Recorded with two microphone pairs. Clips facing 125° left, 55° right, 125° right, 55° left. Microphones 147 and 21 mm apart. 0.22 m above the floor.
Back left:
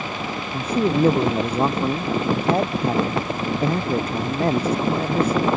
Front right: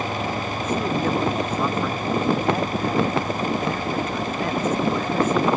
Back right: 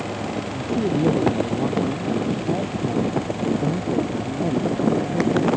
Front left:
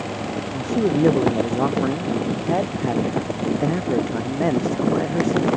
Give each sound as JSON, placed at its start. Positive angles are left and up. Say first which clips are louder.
{"t": 0.5, "sound": "a man speaking", "louder": "back left 6 dB, front left 3 dB", "azimuth_deg": 70}